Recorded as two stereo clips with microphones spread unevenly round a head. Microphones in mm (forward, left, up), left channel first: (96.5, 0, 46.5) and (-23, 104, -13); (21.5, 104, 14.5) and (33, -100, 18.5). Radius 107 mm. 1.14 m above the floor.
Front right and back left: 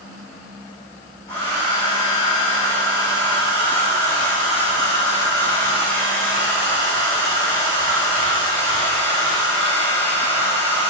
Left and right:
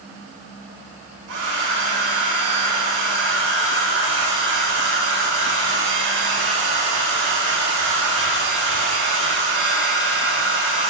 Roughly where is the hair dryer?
Behind right.